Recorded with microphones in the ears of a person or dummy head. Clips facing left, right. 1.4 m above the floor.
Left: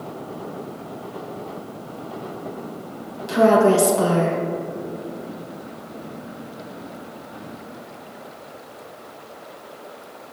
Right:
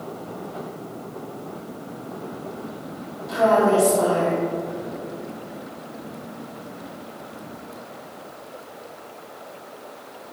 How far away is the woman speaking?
About 1.5 m.